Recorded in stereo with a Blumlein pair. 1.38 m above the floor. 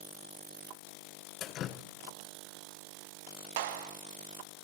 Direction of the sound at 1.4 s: 30° left.